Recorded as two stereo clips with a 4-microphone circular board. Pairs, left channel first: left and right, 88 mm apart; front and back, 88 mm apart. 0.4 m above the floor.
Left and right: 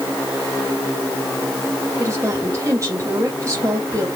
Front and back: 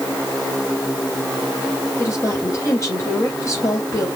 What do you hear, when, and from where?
2.0 s a woman speaking: 45° right, 2.5 m